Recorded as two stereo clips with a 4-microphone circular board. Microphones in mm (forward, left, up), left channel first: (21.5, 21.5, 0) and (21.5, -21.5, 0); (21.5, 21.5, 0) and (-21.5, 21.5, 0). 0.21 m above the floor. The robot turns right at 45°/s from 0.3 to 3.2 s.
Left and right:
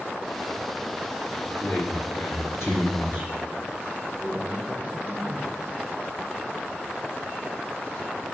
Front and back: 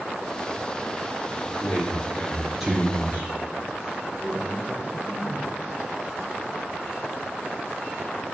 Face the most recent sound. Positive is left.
turn(degrees=130)